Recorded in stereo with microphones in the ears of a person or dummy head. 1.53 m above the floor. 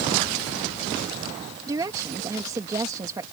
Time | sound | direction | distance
1.7 | a woman speaking | 20° right (ahead or behind) | ?